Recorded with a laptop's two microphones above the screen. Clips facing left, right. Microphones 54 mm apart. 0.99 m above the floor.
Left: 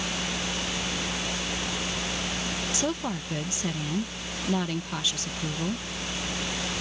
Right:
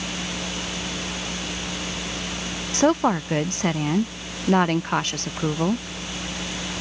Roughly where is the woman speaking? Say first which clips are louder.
Right 14 dB; right.